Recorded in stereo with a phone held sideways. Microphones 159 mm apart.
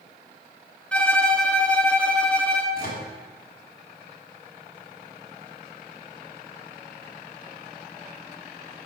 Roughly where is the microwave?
Left.